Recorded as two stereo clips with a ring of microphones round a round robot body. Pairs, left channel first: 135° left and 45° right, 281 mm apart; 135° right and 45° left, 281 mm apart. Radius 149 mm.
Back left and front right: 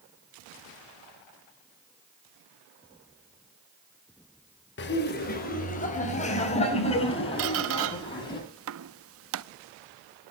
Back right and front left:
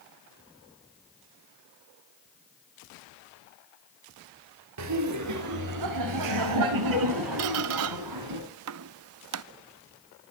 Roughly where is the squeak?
Ahead.